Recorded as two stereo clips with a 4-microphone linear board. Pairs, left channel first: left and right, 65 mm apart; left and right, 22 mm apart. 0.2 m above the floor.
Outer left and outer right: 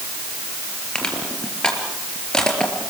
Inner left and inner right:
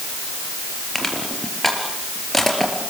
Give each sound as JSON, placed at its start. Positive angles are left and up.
{"t": 0.9, "sound": "crushing", "side_deg": 10, "distance_m": 4.5}